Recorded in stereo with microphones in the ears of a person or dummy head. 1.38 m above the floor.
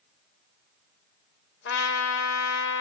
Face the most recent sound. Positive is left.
turn(degrees=70)  # may be behind; listen again after turning